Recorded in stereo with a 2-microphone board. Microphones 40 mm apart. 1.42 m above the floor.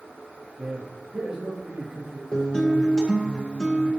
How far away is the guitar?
About 2 m.